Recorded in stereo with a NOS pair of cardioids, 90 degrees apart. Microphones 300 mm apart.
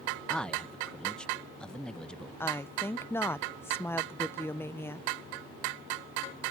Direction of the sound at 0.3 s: 5° left.